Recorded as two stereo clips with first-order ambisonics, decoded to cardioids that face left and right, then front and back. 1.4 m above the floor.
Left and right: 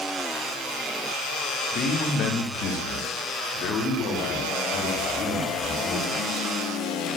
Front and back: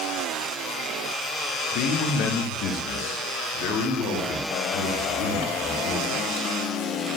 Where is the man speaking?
35° left, 1.2 m; by 6.5 s 40° left, 4 m.